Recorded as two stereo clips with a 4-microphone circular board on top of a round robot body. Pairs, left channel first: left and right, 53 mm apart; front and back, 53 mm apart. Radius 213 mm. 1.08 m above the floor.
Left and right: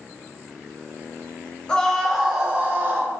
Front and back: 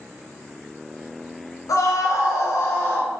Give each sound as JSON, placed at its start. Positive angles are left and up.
{"t": 1.7, "sound": "a scream", "azimuth_deg": 15, "distance_m": 1.0}